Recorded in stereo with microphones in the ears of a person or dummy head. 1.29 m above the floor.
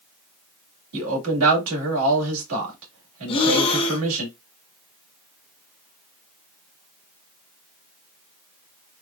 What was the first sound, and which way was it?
A man speaking, 85° right.